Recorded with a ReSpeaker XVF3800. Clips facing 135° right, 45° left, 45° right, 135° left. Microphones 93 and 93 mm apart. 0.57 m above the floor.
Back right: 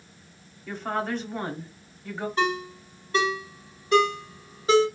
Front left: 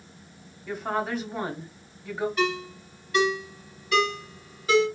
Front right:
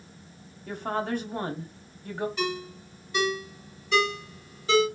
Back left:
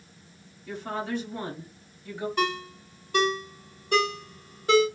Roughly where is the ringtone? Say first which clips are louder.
Back right 1 dB, back left 3 dB; behind.